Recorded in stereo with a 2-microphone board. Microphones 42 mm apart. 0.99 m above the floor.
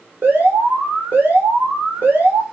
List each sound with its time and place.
0.2 s an alarm: 55° right (ahead or behind), 4 m